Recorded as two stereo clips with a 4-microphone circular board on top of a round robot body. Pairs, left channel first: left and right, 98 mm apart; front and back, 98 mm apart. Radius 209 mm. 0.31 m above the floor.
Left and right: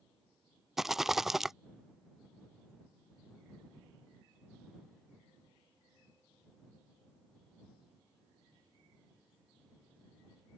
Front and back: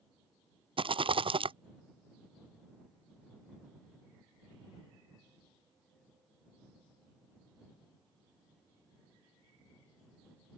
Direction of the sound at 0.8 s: 175° right.